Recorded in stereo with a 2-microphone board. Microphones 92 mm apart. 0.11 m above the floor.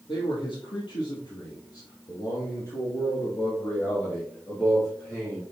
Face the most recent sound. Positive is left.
turn(degrees=10)  # may be behind; listen again after turning